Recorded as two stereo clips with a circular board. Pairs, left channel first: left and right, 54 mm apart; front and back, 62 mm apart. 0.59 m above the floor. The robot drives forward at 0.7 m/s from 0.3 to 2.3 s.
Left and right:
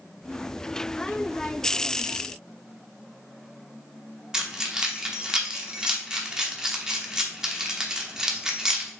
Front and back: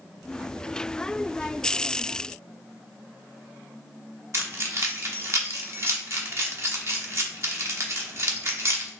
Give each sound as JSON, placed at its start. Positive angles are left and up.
{"t": 4.3, "sound": "keys jangling", "azimuth_deg": -165, "distance_m": 0.9}